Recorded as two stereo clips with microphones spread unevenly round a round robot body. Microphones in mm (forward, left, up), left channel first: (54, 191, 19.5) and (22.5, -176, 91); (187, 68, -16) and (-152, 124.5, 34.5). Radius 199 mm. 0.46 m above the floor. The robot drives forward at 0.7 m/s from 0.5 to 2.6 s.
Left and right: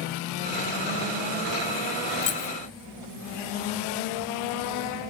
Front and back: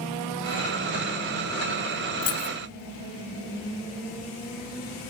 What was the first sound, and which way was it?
Keys jangling, 30° left.